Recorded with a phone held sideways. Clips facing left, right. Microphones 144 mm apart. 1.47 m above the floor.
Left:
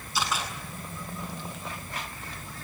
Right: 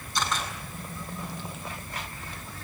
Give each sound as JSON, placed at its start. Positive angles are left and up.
{"t": 0.1, "sound": "a camera shutter", "side_deg": 5, "distance_m": 7.5}